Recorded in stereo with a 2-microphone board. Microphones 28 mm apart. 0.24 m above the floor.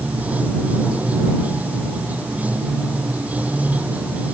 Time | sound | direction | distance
0.0 | running water | 85° right | ?